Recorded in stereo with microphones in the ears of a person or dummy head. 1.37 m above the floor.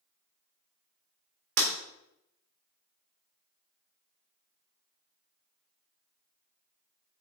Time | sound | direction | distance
1.6 | breaking glass | 65° right (ahead or behind) | 1.8 m